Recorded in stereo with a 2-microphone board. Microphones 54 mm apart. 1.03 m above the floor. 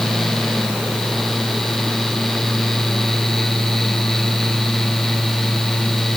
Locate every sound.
Only background noise.